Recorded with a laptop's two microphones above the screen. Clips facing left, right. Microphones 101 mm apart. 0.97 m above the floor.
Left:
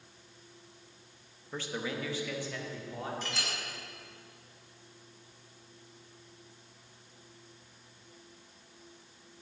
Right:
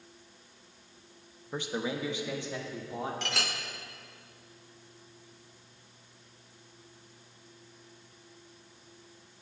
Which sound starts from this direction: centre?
A man speaking, at 1.5 s.